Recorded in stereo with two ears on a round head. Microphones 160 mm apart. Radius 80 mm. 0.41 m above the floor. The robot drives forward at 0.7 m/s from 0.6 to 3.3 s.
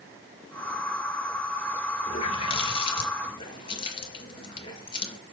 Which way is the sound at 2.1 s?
35° left (ahead or behind).